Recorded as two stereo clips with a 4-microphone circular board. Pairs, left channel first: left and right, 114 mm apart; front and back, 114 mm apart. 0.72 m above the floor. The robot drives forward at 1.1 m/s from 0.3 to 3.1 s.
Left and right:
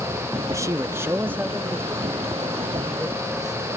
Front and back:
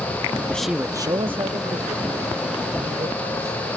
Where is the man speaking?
60° right; by 3.6 s 175° right.